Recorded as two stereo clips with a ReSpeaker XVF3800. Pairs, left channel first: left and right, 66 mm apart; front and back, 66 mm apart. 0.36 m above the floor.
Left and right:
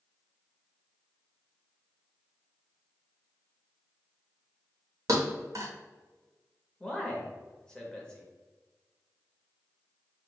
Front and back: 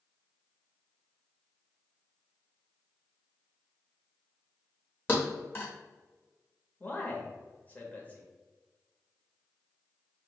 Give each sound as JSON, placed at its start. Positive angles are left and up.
{"t": 5.1, "sound": "a thud", "azimuth_deg": -55, "distance_m": 1.1}
{"t": 6.8, "sound": "a man speaking", "azimuth_deg": 25, "distance_m": 1.0}